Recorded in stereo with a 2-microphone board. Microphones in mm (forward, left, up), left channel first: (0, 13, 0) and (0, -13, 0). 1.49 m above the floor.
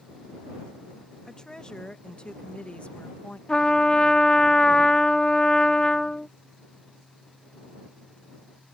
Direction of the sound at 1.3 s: 30° left (ahead or behind).